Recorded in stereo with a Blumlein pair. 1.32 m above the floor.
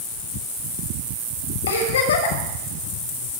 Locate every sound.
1.7 s a giggle: 65° left, 8 m